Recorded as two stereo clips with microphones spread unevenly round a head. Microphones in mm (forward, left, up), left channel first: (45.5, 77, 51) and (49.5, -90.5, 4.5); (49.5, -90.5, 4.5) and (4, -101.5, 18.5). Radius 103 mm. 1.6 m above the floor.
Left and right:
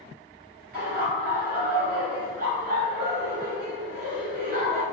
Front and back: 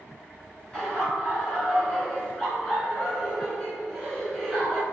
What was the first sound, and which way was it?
Laughter, 70° right.